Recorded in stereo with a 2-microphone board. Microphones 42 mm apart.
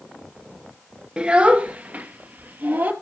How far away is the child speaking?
About 1.2 m.